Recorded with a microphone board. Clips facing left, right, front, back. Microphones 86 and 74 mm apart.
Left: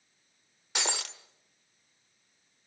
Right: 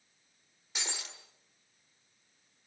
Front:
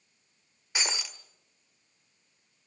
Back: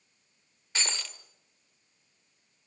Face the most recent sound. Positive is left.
turn(degrees=75)